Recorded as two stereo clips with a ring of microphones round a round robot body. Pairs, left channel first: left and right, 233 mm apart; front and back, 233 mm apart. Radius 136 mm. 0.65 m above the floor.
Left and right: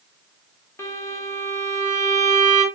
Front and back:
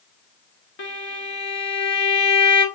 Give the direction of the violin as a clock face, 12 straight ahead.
12 o'clock.